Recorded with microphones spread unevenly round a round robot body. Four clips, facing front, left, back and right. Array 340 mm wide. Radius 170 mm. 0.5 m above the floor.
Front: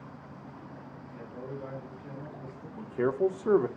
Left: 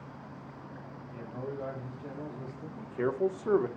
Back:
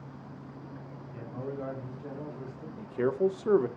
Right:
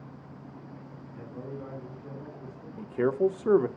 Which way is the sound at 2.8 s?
75° right.